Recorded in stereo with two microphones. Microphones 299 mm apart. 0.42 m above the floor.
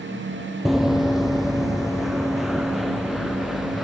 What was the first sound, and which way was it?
Running footsteps, centre (ahead or behind).